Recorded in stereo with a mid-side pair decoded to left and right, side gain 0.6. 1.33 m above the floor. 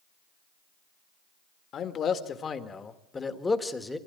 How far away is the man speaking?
About 2 m.